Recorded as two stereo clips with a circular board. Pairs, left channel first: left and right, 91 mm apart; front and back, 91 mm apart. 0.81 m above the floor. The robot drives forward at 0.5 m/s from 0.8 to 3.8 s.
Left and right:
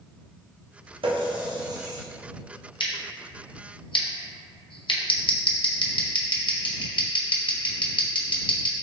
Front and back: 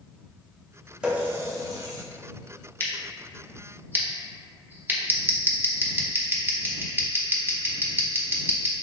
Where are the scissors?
65° left, 0.6 m; by 8.7 s 115° left, 0.6 m.